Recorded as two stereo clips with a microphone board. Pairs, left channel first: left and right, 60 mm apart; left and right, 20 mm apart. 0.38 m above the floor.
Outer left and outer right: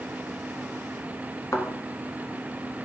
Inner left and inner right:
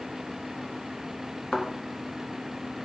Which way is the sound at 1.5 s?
55° left (ahead or behind).